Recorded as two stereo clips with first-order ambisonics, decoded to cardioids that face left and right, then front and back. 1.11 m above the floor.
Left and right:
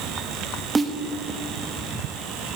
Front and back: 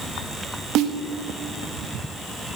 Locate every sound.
0.8 s a snare drum: 165° right, 0.6 m